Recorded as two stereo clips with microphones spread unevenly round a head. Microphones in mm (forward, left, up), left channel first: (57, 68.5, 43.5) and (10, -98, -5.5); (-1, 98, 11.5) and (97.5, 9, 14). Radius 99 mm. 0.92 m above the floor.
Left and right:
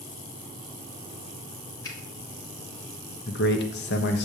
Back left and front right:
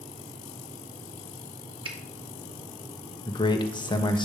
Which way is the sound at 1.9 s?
5° left.